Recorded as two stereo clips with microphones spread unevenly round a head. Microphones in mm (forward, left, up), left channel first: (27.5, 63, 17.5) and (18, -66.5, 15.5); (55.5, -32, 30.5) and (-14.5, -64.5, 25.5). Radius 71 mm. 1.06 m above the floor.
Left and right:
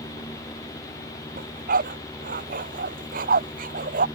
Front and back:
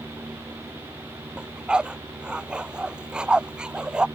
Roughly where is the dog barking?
Right.